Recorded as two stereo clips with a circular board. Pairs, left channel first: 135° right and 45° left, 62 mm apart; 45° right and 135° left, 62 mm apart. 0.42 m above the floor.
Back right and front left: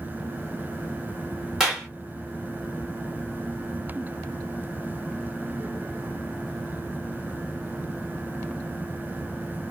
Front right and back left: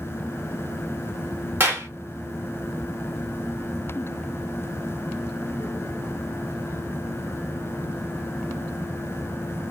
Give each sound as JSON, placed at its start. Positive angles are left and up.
{"t": 1.6, "sound": "a clap", "azimuth_deg": 125, "distance_m": 1.3}